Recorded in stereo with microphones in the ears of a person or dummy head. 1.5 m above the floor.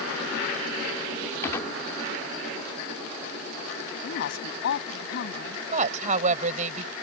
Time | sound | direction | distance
1.4 | a gunshot | 20° left (ahead or behind) | ?
4.0 | a woman speaking | 65° left (ahead or behind) | ?
5.7 | a woman speaking | 50° right (ahead or behind) | ?